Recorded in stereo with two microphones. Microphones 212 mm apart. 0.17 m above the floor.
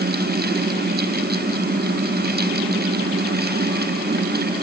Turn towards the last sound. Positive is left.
No sound to turn to.